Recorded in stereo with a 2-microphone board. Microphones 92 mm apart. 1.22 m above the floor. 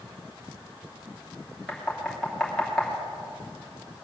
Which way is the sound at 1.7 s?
5° left (ahead or behind).